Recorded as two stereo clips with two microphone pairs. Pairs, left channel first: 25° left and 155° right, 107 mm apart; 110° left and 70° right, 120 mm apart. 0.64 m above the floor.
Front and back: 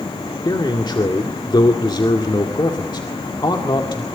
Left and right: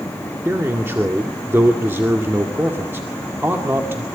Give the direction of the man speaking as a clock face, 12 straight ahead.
12 o'clock.